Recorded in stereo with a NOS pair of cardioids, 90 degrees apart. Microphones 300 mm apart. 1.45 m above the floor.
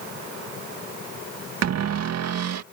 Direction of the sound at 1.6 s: 55° right.